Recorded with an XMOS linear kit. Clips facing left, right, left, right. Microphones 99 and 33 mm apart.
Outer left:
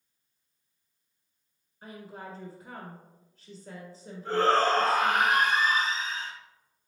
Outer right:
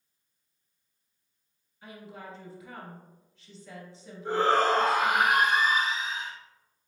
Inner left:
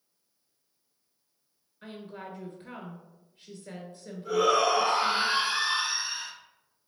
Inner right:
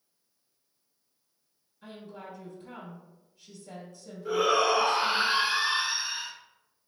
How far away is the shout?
About 1.1 m.